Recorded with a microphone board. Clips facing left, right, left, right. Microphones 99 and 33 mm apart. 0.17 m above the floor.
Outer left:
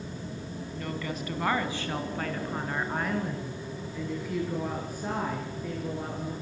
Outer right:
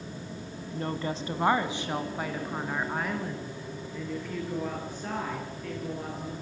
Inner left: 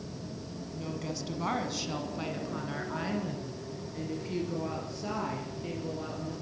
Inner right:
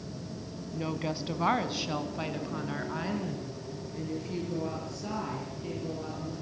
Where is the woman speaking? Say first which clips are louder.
Outer right 4 dB, inner right 5 dB; 35° right (ahead or behind), 1.7 m; by 6.3 s 15° left (ahead or behind), 5 m.